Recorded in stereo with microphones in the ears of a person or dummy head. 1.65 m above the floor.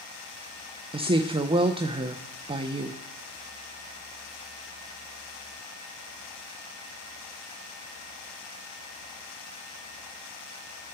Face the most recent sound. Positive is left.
turn(degrees=-25)  # may be behind; listen again after turning